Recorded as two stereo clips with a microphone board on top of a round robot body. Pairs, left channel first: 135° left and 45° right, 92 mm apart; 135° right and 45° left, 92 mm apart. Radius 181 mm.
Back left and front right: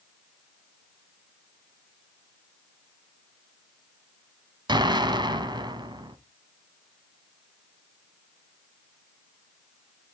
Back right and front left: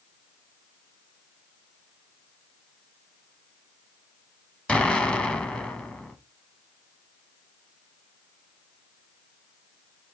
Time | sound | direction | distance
4.7 | an explosion | 60° right | 1.5 m